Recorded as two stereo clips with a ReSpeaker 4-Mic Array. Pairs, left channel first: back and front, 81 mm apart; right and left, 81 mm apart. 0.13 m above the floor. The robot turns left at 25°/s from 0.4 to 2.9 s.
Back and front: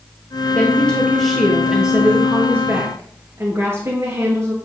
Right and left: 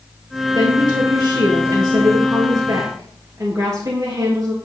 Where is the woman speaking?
110° left, 2.5 m; by 4.5 s 55° left, 2.5 m.